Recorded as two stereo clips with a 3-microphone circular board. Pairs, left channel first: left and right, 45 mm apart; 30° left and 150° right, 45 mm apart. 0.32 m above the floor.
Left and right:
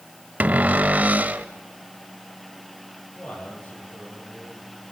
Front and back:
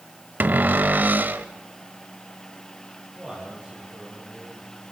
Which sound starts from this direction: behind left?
A man speaking, at 3.1 s.